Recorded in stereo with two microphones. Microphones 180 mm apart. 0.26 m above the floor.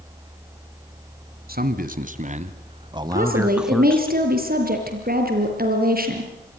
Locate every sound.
1.5 s a man speaking: 55° right (ahead or behind), 2 m; by 4.1 s 10° left (ahead or behind), 1.4 m
3.1 s a woman speaking: 55° right (ahead or behind), 6 m